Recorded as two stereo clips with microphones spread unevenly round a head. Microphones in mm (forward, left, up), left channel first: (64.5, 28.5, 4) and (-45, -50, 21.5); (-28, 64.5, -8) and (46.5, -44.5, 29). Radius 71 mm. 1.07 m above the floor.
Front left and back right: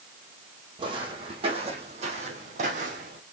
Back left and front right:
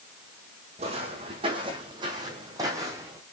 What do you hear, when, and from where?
0.8 s footsteps: 95° right, 3 m; by 3.2 s 120° right, 3 m